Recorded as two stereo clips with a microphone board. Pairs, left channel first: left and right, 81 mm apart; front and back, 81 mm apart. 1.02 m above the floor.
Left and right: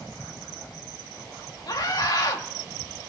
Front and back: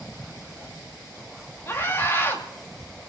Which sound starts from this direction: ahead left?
A scream, at 1.7 s.